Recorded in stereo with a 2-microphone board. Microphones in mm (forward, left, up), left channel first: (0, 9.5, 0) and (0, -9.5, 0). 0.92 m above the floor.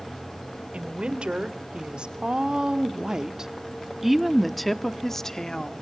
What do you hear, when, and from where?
0.7 s a woman speaking: 70° right (ahead or behind), 3 m; by 5.7 s 30° left (ahead or behind), 1.7 m